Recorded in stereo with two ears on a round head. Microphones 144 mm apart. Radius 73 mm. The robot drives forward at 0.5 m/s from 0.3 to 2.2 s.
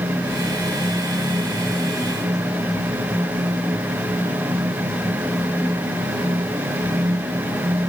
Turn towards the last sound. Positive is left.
No sound to turn to.